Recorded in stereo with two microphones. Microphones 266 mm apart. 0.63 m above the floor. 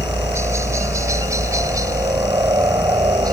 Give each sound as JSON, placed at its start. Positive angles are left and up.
{"t": 0.0, "sound": "a helicopter", "side_deg": -10}